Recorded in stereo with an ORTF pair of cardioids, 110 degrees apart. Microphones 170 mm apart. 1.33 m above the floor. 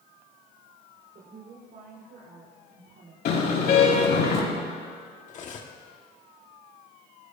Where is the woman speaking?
60° right, 5 m; by 3.1 s 55° right, 3.5 m.